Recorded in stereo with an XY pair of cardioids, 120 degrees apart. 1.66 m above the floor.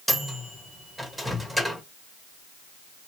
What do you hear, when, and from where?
0.1 s a microwave: 5° right, 1.7 m